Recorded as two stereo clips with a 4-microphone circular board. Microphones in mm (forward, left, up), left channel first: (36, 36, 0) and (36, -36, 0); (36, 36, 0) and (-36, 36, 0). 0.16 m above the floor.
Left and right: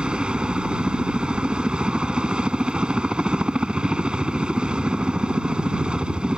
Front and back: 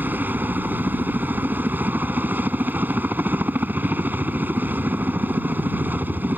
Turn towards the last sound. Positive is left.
turn(degrees=-155)